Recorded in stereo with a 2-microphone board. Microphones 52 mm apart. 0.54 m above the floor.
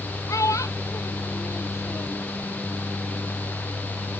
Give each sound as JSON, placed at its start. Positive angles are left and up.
{"t": 0.3, "sound": "a child speaking", "side_deg": 80}